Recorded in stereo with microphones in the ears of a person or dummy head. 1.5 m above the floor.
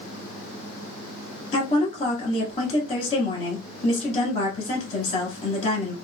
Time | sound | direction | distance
1.5 | a woman speaking | 35° left (ahead or behind) | 1.5 m